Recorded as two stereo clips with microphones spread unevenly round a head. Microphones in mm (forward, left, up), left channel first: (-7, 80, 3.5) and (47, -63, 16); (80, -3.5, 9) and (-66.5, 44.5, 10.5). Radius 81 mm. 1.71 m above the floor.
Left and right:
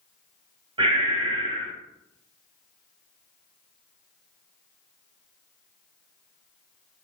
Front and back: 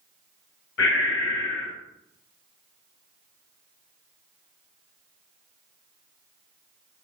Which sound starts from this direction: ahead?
Breathing, at 0.8 s.